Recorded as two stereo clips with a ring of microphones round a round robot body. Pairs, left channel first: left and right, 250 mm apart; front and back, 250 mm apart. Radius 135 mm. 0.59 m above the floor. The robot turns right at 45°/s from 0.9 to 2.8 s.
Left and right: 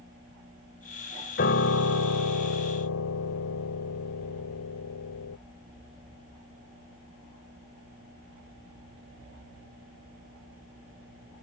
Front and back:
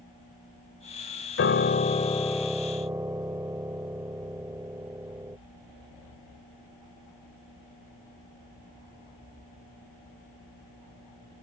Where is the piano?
35° left; by 5.4 s 100° left.